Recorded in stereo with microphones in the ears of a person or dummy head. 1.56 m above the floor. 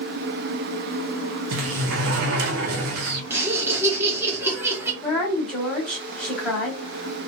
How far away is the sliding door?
About 0.6 m.